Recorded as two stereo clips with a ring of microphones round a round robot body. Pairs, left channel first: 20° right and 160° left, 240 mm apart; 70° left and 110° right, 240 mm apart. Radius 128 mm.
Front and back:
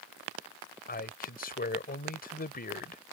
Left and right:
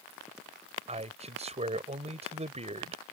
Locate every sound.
0.9 s a man speaking: 60° right